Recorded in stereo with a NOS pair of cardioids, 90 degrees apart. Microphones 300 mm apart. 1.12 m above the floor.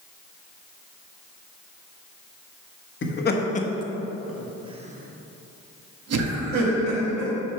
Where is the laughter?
40° left, 1.3 m; by 7.3 s 65° right, 2 m.